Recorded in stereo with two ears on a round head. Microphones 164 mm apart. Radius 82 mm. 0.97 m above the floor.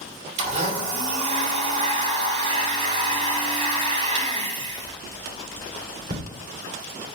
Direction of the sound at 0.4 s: 40° right (ahead or behind).